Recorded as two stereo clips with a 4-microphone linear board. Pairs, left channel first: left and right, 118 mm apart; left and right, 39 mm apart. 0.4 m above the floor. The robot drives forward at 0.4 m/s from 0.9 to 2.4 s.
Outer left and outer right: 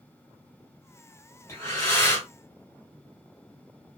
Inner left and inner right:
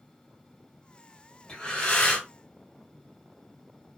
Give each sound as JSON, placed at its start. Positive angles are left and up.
{"t": 1.5, "sound": "breathing", "side_deg": 20, "distance_m": 1.7}